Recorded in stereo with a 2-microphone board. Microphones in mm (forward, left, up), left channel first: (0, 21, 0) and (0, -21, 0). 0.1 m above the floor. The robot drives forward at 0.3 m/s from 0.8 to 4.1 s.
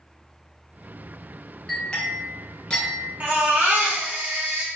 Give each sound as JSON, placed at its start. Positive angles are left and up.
{"t": 1.7, "sound": "a clink", "side_deg": 15, "distance_m": 0.9}
{"t": 3.2, "sound": "a baby crying", "side_deg": -50, "distance_m": 0.9}